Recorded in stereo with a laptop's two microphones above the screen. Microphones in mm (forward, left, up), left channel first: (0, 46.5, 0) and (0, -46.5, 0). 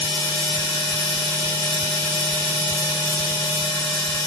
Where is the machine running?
5° left (ahead or behind), 1.2 m.